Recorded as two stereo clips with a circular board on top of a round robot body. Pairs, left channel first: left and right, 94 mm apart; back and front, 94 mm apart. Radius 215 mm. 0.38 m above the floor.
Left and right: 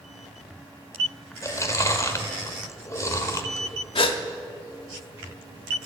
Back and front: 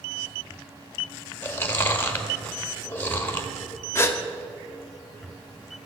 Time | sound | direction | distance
1.4 | chewing | 125° left | 1.6 m
4.0 | a gasp | 115° left | 0.9 m